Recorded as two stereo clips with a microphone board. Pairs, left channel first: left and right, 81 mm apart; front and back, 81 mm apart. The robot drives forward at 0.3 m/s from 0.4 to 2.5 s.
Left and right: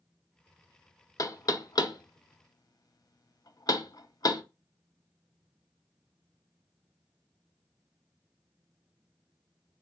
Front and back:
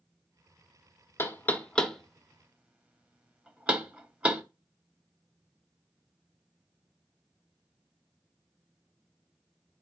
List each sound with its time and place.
1.2 s knocking: 55° left, 0.6 m; by 4.4 s 110° left, 0.5 m